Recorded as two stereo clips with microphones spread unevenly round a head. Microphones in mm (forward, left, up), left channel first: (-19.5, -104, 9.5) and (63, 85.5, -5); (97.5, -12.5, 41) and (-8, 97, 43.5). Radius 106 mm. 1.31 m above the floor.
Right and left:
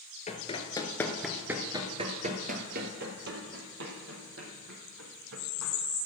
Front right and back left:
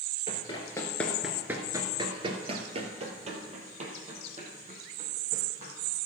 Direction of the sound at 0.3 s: 90° right.